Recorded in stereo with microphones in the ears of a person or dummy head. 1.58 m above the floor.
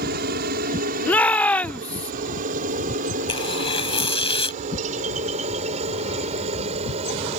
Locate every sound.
0.0 s a helicopter: 55° right (ahead or behind); by 7.4 s 35° right (ahead or behind)
1.1 s a shout: 5° left (ahead or behind)
3.3 s tearing paper: 35° left (ahead or behind)